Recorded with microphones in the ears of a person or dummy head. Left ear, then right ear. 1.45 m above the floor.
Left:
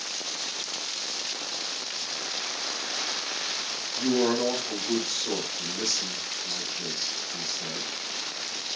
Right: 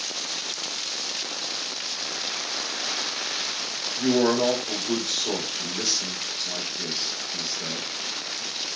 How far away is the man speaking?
About 1.5 m.